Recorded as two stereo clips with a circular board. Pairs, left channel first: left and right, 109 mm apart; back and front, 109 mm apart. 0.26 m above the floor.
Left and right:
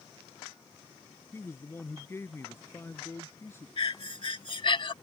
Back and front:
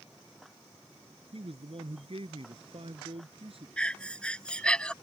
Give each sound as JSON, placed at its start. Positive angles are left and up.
{"t": 1.3, "sound": "a man speaking", "azimuth_deg": 25}
{"t": 3.8, "sound": "breathing", "azimuth_deg": 100}